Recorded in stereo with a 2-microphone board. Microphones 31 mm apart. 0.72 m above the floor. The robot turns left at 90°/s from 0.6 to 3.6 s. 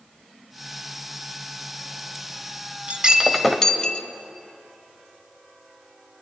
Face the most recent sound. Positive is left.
turn(degrees=165)